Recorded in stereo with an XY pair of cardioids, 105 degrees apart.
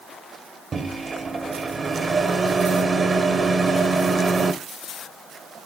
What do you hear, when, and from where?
0.7 s a microwave: 35° right, 1.2 m